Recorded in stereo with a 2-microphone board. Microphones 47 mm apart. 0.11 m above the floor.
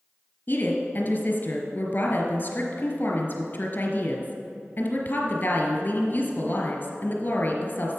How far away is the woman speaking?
About 1.5 m.